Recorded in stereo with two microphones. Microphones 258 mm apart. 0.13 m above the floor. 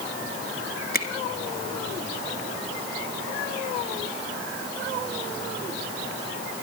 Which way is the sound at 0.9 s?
35° left (ahead or behind).